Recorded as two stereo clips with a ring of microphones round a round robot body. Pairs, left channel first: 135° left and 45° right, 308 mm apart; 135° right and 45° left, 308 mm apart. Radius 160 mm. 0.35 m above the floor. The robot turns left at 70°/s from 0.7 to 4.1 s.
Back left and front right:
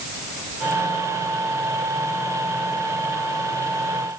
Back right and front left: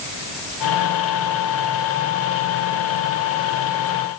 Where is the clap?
No clap in this recording.